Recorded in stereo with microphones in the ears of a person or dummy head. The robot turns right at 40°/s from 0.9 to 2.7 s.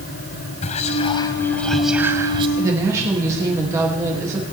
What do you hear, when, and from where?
0.6 s whispering: 150° left, 0.6 m; by 2.5 s 150° right, 0.6 m
2.6 s a woman speaking: 20° right (ahead or behind), 2.5 m; by 4.4 s 15° right (ahead or behind), 2.5 m